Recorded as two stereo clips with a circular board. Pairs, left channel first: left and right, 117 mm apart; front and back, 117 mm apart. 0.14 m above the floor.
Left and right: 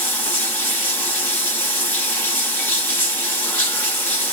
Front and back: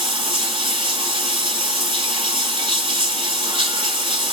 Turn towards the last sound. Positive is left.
turn(degrees=155)